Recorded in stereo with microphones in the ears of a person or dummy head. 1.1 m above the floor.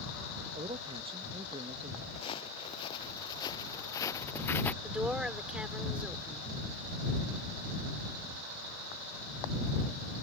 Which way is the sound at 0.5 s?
25° right (ahead or behind).